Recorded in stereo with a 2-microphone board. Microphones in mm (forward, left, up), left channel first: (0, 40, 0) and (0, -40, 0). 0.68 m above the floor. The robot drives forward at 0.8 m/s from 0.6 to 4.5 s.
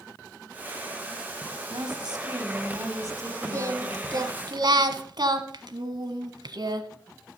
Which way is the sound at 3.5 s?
40° right (ahead or behind).